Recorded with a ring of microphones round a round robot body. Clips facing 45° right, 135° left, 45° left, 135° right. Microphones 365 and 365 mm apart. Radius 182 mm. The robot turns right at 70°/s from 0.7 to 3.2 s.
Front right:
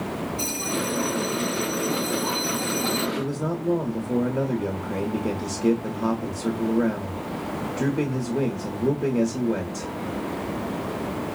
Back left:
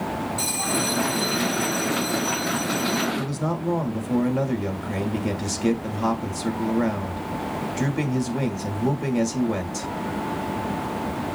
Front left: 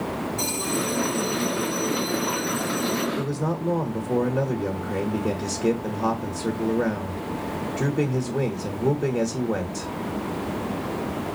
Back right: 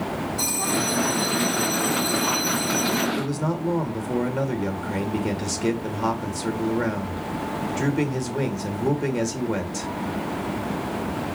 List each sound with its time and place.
0.4 s a bell: 140° left, 4 m; by 3.1 s 55° right, 4 m
3.2 s a man speaking: straight behind, 1.3 m